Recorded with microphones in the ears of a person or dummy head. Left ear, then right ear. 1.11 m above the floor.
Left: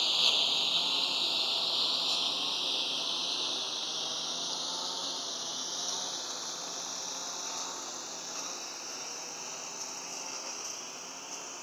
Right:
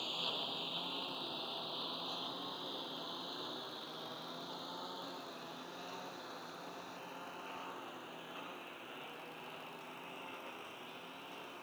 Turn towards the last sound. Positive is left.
turn(degrees=75)  # may be behind; listen again after turning